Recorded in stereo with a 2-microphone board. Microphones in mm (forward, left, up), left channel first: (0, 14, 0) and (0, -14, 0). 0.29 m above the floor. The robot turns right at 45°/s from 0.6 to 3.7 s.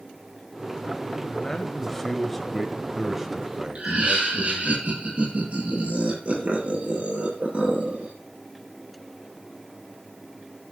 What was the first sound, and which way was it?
A man speaking, 20° left (ahead or behind).